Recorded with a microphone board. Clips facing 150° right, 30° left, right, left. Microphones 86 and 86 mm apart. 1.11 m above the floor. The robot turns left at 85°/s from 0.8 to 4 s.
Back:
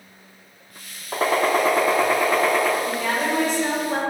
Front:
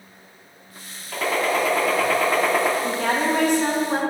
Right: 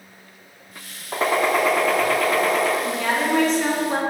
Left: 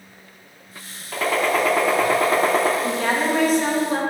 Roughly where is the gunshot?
Behind right.